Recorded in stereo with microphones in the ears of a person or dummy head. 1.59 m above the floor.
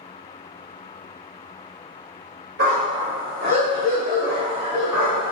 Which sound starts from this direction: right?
A dog barking, at 2.6 s.